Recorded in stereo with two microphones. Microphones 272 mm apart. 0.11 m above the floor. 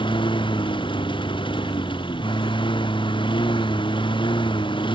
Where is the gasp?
I don't hear a gasp.